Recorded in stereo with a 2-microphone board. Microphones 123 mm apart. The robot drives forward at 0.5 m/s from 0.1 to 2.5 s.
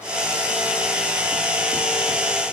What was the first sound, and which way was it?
Only background noise.